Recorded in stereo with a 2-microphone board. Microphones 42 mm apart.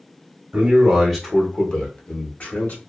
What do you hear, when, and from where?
0.5 s a man speaking: 20° right (ahead or behind), 0.8 m; by 2.8 s 55° left (ahead or behind), 1.2 m